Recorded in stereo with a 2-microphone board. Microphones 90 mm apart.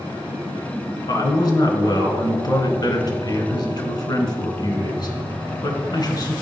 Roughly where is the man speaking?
Left.